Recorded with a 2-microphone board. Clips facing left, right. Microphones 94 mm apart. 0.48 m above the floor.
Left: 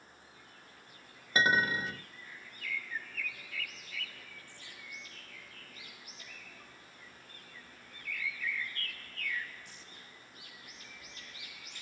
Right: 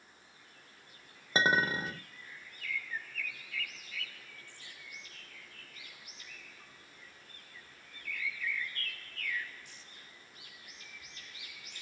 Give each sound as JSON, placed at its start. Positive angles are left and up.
{"t": 1.4, "sound": "a clink", "side_deg": -25, "distance_m": 0.5}